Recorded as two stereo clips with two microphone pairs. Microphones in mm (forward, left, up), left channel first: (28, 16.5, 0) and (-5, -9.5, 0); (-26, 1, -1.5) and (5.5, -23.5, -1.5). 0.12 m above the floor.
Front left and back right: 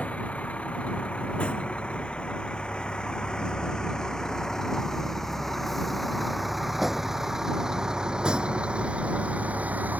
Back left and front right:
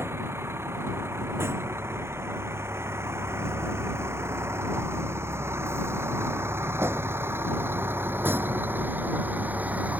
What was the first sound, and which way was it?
A vehicle, 20° right.